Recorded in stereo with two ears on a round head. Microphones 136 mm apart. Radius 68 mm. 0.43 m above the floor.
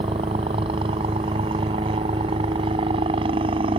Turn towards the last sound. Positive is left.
turn(degrees=-35)  # may be behind; listen again after turning